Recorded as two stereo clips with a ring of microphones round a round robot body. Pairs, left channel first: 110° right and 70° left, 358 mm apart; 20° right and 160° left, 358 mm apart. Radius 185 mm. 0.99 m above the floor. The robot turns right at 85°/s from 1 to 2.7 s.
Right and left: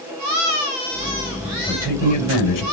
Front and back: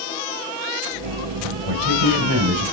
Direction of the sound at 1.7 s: 165° left.